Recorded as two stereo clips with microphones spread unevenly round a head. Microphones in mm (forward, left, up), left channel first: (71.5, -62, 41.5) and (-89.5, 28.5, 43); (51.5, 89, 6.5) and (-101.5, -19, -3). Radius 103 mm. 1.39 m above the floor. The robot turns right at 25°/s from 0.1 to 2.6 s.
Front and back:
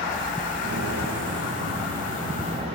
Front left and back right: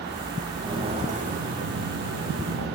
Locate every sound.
0.6 s footsteps: 145° left, 4 m; by 2.8 s 150° right, 6 m